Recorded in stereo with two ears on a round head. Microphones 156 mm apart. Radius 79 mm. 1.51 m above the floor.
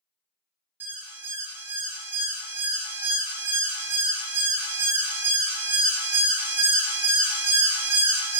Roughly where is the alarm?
Centre.